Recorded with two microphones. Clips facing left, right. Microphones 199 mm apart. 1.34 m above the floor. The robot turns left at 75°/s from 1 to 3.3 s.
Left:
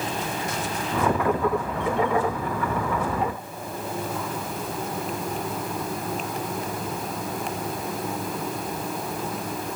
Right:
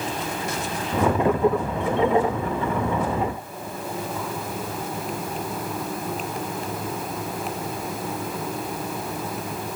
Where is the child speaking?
No child speaking in this recording.